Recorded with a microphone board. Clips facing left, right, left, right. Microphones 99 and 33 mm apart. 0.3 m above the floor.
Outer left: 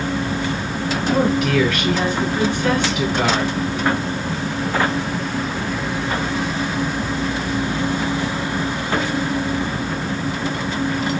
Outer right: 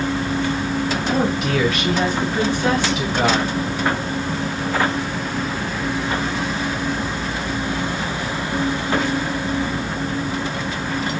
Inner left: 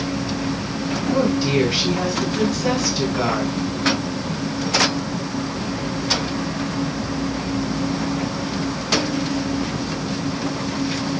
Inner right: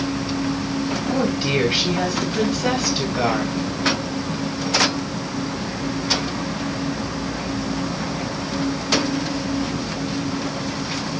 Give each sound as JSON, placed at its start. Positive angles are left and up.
{"t": 1.1, "sound": "a woman speaking", "side_deg": -15, "distance_m": 1.4}